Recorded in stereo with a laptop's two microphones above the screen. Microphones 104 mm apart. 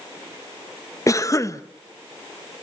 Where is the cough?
30° left (ahead or behind), 1.1 m.